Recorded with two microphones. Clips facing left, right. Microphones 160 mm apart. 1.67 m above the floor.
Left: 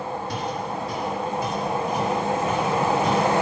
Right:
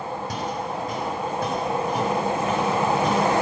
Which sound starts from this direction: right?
Footsteps, at 0.3 s.